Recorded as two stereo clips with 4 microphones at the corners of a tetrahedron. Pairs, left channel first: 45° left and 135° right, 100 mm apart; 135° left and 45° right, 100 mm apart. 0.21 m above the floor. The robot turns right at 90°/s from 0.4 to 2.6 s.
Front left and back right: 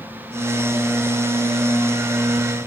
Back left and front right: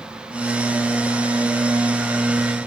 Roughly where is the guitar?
I don't hear a guitar.